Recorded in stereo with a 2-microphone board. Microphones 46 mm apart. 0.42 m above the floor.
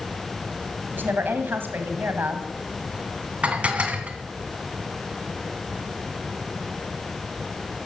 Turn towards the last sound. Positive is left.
turn(degrees=-30)  # may be behind; listen again after turning